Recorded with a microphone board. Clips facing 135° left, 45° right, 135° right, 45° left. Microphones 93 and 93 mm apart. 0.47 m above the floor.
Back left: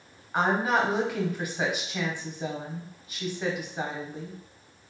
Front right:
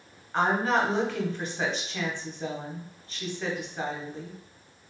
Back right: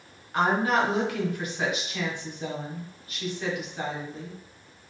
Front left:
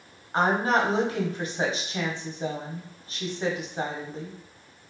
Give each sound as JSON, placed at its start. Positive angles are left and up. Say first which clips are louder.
{"t": 0.3, "sound": "a woman speaking", "louder": "even, front left 1 dB", "azimuth_deg": 65, "distance_m": 0.8}